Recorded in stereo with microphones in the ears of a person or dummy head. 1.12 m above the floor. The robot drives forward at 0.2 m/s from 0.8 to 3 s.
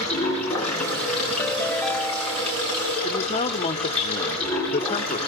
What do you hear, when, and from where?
0.0 s running water: 10° left (ahead or behind), 6.5 m
1.4 s a ringtone: 15° left (ahead or behind), 0.6 m; by 2.6 s 10° left (ahead or behind), 0.8 m
3.0 s a man speaking: 35° left (ahead or behind), 1.2 m